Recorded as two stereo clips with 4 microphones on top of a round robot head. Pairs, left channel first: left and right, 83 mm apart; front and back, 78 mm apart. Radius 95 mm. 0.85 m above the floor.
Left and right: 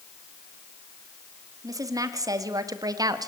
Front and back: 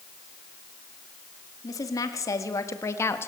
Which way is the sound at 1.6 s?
45° right.